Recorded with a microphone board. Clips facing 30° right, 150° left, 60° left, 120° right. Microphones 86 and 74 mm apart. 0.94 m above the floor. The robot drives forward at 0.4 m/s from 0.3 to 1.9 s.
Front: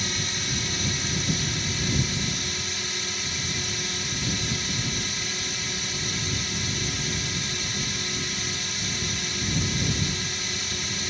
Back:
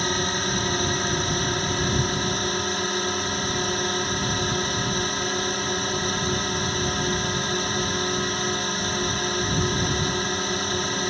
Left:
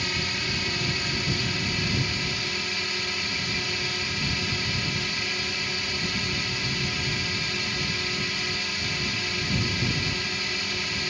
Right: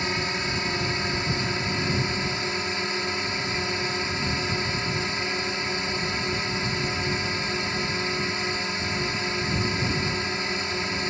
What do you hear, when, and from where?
0.0 s a drone: 175° left